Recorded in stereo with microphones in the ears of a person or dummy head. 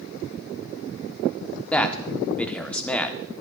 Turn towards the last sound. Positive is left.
turn(degrees=0)  # may be behind; listen again after turning